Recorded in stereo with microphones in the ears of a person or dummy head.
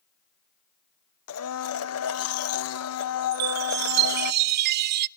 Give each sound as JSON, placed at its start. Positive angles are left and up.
{"t": 1.3, "sound": "a blender", "side_deg": 75, "distance_m": 1.1}
{"t": 3.3, "sound": "a chime", "side_deg": -55, "distance_m": 0.6}